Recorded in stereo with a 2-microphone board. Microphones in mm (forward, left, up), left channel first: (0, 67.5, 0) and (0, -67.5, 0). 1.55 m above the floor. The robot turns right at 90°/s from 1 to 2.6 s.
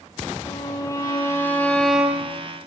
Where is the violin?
25° left (ahead or behind), 1.5 m; by 2.4 s 15° right (ahead or behind), 1.5 m.